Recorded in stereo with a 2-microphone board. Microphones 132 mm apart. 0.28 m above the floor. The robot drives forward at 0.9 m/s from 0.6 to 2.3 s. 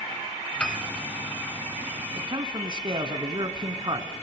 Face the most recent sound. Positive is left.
turn(degrees=-35)  # may be behind; listen again after turning